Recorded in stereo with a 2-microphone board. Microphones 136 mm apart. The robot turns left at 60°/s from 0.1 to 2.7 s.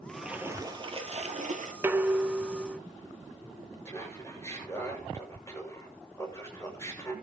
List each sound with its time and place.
0.1 s a splash: 5° left, 1.9 m; by 1.7 s 95° right, 1.9 m
1.8 s dishes clattering: 15° right (ahead or behind), 0.7 m; by 2.8 s centre (ahead or behind), 0.7 m
3.9 s laughter: 20° left (ahead or behind), 7 m